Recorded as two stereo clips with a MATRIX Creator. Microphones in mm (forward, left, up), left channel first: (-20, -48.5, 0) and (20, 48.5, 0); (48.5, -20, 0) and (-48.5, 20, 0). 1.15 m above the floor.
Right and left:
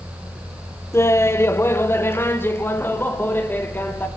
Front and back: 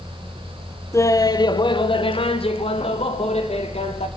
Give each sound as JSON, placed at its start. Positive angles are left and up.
{"t": 0.9, "sound": "laughter", "azimuth_deg": -65, "distance_m": 0.7}